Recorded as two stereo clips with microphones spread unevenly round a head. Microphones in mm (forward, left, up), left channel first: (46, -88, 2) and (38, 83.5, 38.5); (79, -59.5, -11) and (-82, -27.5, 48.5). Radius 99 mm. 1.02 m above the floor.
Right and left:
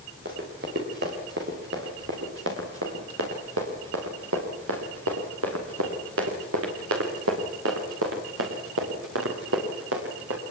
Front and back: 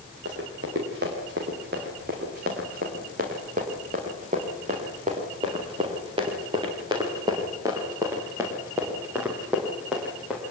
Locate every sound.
0.2 s running footsteps: 135° left, 6 m; by 10.4 s 85° left, 6 m